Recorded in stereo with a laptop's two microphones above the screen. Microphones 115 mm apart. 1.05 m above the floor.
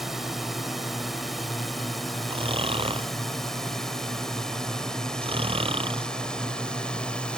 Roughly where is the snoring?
Right.